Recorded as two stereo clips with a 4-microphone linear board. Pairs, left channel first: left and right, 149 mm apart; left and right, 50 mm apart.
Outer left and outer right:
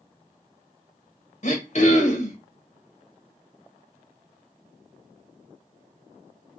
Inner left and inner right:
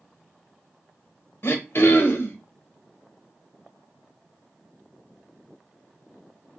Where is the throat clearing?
50° left (ahead or behind), 0.7 m.